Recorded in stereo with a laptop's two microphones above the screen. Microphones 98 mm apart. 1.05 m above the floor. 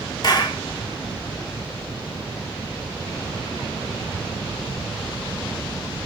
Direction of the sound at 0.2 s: 45° left (ahead or behind).